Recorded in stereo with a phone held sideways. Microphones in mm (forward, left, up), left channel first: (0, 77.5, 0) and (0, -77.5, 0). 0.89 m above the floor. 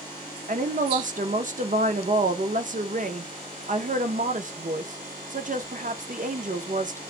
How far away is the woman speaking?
About 0.6 m.